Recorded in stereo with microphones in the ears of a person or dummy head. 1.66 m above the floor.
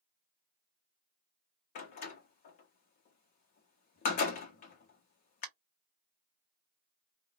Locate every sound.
1.8 s a door slam: 35° left (ahead or behind), 0.6 m